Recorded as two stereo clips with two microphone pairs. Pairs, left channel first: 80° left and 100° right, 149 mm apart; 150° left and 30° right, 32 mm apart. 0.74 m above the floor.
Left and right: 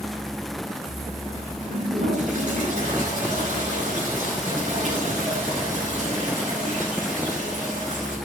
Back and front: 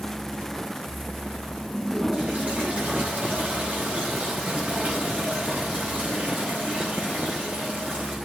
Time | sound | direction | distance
1.7 | a toilet flushing | 70° right | 7.5 m